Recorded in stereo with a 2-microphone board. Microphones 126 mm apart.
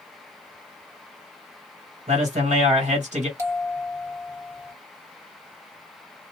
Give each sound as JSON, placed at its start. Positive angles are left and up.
{"t": 2.1, "sound": "a man speaking", "side_deg": -70, "distance_m": 1.5}
{"t": 3.4, "sound": "a bell", "side_deg": -25, "distance_m": 1.5}